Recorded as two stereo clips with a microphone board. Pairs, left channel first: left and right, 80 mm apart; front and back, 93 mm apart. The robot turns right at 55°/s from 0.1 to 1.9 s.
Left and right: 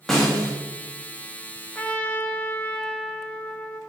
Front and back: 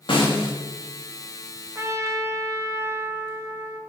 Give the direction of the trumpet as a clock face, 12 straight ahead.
7 o'clock.